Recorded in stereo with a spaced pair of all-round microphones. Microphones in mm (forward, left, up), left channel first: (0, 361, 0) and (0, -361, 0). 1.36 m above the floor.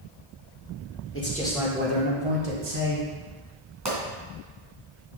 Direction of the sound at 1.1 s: 20° left (ahead or behind).